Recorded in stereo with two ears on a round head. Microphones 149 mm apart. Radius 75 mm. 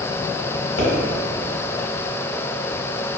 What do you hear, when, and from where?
0.8 s a pop: 75° left (ahead or behind), 1.0 m